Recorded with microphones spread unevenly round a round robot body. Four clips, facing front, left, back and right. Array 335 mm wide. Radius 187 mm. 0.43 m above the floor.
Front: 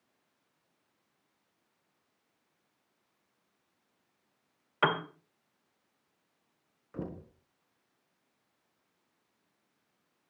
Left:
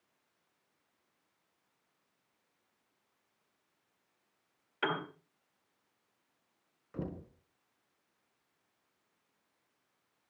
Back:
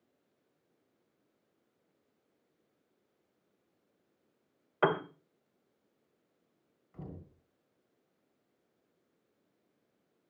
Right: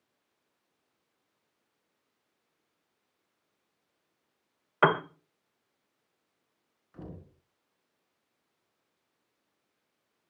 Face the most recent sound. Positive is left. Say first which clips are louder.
# left 5 dB, front 8 dB
turn(degrees=25)